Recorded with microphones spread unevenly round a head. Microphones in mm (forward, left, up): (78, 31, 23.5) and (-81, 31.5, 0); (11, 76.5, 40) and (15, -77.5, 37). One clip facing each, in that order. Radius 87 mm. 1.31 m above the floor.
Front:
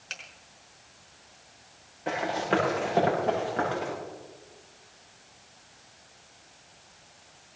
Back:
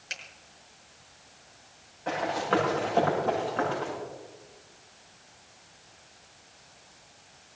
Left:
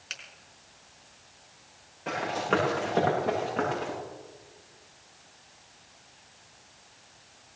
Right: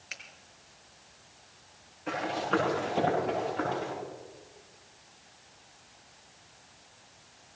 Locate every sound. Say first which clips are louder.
0.1 s a finger snap: back 1 dB, left 1 dB; 100° left, 5 m
2.1 s running footsteps: even, left 2 dB; 65° left, 8 m; by 3.9 s 70° left, 10 m